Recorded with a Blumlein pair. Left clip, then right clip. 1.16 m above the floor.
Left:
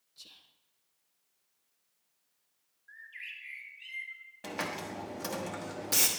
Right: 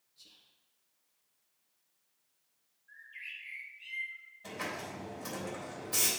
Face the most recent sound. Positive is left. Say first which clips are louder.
# left 3 dB
turn(degrees=50)